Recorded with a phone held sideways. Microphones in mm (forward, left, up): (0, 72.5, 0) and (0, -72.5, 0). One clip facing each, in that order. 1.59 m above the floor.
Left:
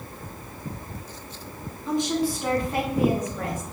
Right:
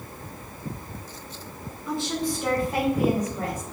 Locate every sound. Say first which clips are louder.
1.9 s a woman speaking: left 3 dB; 25° left (ahead or behind), 0.9 m; by 3.6 s 20° right (ahead or behind), 2.5 m